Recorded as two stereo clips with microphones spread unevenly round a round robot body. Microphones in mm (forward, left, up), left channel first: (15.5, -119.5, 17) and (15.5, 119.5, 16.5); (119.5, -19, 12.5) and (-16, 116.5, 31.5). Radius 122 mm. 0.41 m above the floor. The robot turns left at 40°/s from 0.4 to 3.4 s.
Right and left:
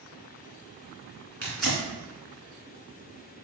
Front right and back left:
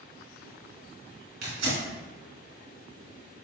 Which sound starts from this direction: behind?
Tearing paper, at 1.4 s.